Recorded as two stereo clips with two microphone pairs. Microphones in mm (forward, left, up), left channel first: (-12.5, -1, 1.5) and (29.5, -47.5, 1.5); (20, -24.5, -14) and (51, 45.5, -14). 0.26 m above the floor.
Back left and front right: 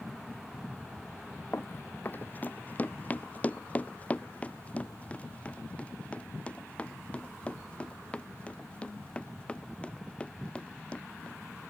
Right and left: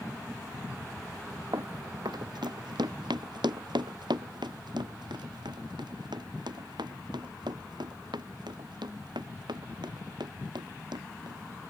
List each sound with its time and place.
1.5 s running footsteps: 85° left; by 11.4 s 60° left